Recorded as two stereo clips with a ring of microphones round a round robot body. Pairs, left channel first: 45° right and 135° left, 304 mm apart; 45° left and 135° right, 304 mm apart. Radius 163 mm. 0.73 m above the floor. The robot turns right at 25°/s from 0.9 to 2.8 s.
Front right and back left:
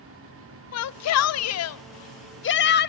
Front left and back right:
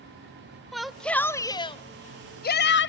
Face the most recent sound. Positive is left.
turn(degrees=5)